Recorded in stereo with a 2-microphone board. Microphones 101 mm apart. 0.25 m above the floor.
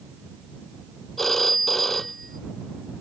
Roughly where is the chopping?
I don't hear chopping.